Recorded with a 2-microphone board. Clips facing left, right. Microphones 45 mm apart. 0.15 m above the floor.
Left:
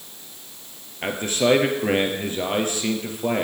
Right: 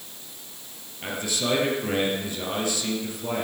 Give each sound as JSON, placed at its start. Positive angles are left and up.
{"t": 1.0, "sound": "a man speaking", "side_deg": 40, "distance_m": 3.0}